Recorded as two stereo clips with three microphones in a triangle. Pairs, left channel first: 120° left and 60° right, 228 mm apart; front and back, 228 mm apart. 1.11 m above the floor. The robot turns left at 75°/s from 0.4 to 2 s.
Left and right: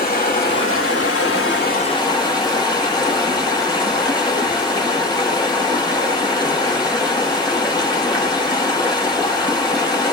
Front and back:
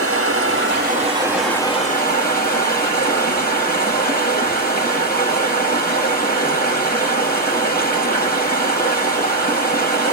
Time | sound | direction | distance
0.0 | running water | 170° left | 3 m